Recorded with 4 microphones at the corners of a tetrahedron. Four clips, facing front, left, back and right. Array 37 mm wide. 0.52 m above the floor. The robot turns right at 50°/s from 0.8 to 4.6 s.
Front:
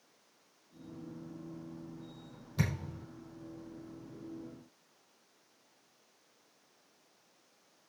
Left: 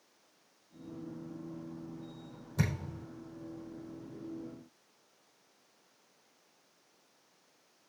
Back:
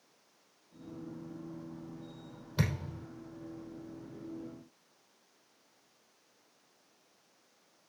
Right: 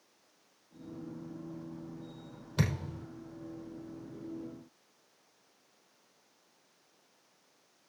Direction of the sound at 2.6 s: 115° right.